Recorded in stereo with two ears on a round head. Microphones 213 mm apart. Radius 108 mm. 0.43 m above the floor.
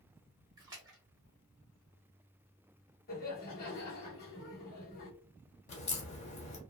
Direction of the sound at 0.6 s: 15° right (ahead or behind).